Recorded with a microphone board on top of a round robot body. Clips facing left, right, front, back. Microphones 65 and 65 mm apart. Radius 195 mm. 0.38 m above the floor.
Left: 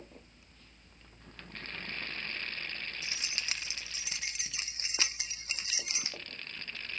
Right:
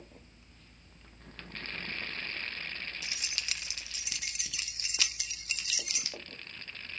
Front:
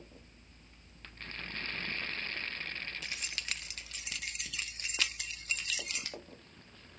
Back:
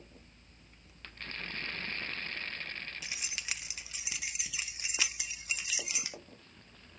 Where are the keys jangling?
105° left, 0.7 m.